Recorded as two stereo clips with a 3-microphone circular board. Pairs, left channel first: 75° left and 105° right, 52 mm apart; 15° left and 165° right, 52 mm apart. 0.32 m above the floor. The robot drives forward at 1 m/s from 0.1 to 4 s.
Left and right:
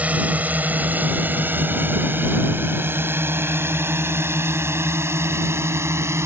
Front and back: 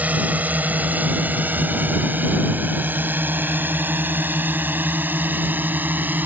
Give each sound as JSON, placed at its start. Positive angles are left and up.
{"t": 0.0, "sound": "a drone", "azimuth_deg": -140}